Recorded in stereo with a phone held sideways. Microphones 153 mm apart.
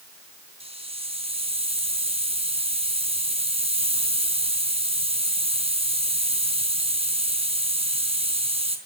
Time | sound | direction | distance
0.6 | a hiss | 40° right (ahead or behind) | 3.5 m